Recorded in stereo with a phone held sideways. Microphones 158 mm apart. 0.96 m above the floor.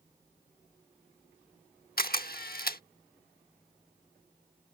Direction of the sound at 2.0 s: 70° left (ahead or behind).